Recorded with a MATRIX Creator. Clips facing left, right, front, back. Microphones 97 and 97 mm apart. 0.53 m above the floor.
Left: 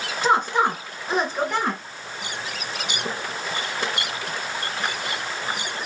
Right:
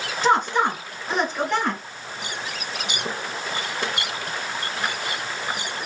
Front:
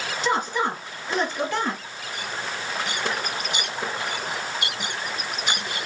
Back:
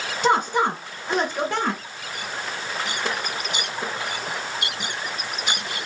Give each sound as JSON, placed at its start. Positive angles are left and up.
{"t": 0.2, "sound": "a woman speaking", "azimuth_deg": 175, "distance_m": 1.9}